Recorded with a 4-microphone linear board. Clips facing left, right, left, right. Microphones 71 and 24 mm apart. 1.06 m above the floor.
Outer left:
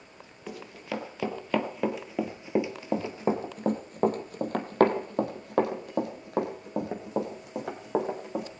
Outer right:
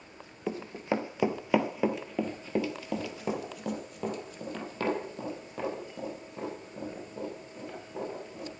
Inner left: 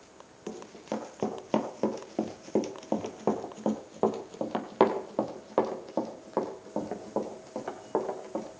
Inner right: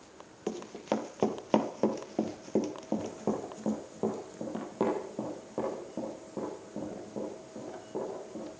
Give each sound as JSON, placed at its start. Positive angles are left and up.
{"t": 0.5, "sound": "running footsteps", "side_deg": -30, "distance_m": 1.6}